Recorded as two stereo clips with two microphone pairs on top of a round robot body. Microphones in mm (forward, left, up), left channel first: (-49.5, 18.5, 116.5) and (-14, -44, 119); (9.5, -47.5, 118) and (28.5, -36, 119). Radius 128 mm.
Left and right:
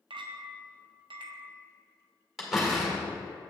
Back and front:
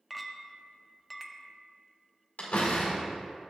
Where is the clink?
55° right, 0.5 m.